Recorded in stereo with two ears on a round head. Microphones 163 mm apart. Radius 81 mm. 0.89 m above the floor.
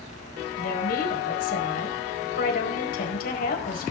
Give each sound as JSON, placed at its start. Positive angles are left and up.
{"t": 0.6, "sound": "a woman speaking", "side_deg": 55, "distance_m": 4.5}